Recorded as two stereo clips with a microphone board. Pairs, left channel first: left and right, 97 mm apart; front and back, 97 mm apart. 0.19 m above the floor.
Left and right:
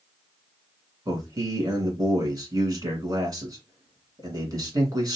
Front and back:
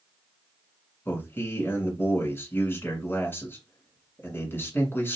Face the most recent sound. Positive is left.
turn(degrees=-60)